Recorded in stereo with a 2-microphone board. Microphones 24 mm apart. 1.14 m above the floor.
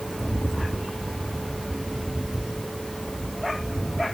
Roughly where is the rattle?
Left.